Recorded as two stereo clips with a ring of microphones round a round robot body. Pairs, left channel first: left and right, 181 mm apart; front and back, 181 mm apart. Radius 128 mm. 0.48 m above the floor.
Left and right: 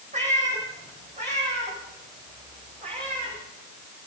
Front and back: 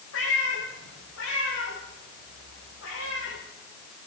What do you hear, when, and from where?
0.1 s a cat meowing: 40° right, 10 m; by 3.4 s 35° right, 13.5 m